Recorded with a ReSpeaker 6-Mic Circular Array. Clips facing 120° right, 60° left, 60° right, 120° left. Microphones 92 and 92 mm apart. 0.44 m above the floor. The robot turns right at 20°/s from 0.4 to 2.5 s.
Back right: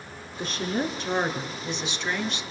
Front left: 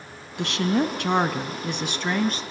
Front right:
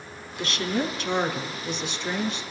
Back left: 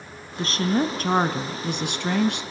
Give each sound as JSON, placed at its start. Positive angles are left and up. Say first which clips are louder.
{"t": 0.4, "sound": "a woman speaking", "louder": "front left 5 dB, back left 4 dB", "azimuth_deg": 65, "distance_m": 3.5}